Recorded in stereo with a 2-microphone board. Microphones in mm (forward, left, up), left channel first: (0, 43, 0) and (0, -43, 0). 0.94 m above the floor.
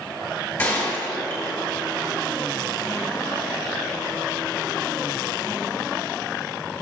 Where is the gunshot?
30° left (ahead or behind), 3 m.